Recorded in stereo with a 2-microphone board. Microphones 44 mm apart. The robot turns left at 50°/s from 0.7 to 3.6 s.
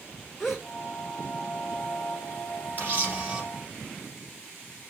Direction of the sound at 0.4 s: Centre (ahead or behind).